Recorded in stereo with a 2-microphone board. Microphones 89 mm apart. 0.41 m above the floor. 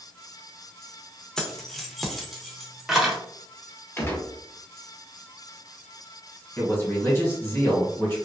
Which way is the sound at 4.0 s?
25° left (ahead or behind).